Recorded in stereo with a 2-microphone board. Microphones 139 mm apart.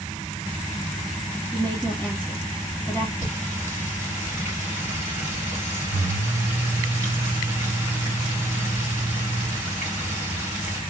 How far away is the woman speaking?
About 1.4 m.